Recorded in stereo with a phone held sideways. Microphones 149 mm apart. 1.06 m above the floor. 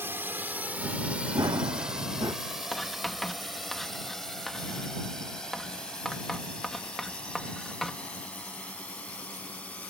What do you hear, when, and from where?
0.0 s a drone: 15° right (ahead or behind); by 9.9 s 10° left (ahead or behind)
1.4 s running footsteps: 25° right (ahead or behind)
2.7 s writing: 5° left (ahead or behind)